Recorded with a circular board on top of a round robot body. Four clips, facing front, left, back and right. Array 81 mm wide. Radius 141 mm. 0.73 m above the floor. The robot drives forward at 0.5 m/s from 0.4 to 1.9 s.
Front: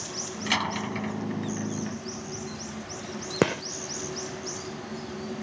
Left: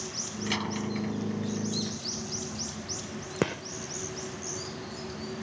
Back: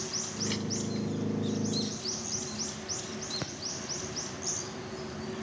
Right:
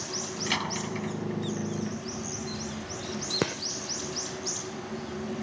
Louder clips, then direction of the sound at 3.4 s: Left 1 dB, front 16 dB; straight ahead.